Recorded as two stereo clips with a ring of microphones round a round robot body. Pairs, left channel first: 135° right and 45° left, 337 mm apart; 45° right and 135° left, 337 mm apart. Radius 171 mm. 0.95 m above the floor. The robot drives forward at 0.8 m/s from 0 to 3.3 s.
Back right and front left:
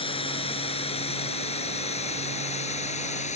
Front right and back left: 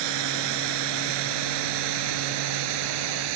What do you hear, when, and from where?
0.0 s running water: 150° left; by 3.4 s 155° left